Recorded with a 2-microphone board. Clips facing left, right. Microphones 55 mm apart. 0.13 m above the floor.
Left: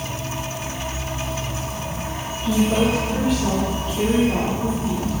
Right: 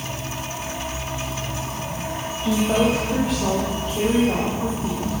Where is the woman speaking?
80° right, 9 m.